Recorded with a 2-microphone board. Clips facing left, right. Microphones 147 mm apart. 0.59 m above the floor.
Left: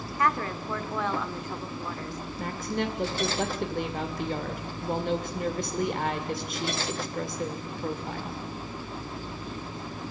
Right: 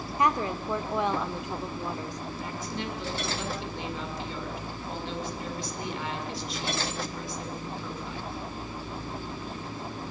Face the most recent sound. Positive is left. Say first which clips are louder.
# left 7 dB
turn(degrees=55)  # may be behind; listen again after turning